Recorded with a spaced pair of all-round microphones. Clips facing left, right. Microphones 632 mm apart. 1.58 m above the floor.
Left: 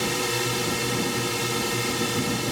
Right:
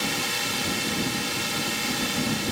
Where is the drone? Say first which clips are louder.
Left 5 dB; 70° left (ahead or behind).